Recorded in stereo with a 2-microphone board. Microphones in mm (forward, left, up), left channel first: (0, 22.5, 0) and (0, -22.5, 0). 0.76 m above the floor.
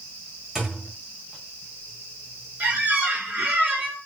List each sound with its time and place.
0.6 s a thud: 10° right (ahead or behind), 1.4 m
2.6 s a squeak: 35° right (ahead or behind), 1.4 m